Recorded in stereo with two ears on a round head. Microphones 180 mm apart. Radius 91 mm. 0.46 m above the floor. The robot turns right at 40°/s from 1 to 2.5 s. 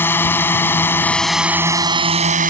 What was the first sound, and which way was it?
A drone, 170° left.